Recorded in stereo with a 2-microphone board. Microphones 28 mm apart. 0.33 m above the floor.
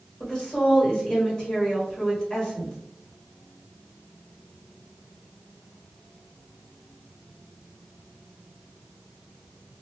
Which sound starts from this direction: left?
A woman speaking, at 0.2 s.